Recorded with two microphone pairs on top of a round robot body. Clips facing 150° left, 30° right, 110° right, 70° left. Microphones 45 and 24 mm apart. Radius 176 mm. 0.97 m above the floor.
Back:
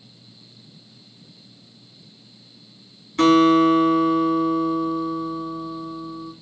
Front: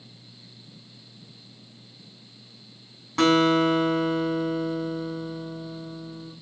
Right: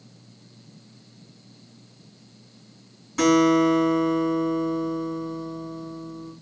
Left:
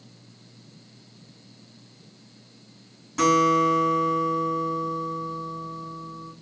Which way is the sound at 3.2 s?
15° right.